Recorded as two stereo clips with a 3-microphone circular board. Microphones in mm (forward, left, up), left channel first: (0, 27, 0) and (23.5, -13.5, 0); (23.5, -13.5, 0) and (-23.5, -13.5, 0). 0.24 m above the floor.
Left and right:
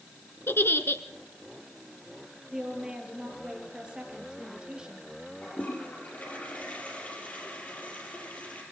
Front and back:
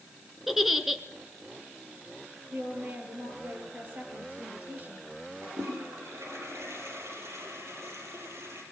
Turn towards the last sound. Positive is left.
turn(degrees=175)